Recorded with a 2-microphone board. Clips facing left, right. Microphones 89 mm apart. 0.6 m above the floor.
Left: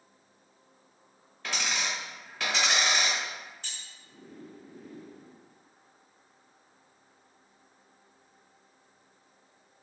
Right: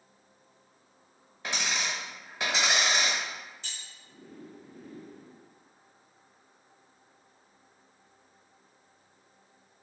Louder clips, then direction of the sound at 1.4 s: Even; 20° right (ahead or behind).